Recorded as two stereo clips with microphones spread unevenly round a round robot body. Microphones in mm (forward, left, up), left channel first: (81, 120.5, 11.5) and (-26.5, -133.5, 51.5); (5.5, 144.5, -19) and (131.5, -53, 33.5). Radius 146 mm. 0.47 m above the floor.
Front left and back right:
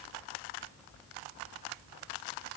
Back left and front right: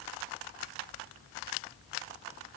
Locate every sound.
Only background noise.